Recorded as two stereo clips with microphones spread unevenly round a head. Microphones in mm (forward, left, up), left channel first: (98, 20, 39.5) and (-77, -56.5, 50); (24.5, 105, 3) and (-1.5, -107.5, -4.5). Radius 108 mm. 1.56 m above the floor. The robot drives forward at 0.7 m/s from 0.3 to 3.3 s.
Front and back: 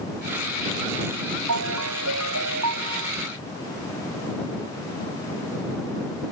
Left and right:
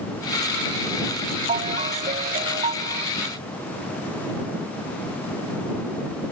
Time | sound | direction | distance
1.5 | a ringtone | 160° right | ?